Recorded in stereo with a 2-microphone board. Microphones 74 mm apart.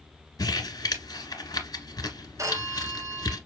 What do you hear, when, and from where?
0.4 s crumpling: 55° left (ahead or behind), 1.9 m
2.4 s a phone ringing: 45° right (ahead or behind), 1.3 m